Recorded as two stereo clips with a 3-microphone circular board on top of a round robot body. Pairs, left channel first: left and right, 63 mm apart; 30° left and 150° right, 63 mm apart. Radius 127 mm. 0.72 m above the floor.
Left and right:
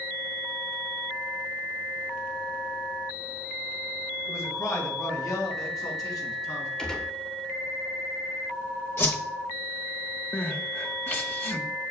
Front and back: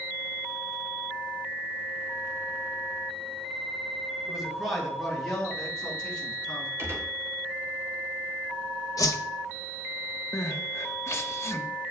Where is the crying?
45° left, 1.3 m.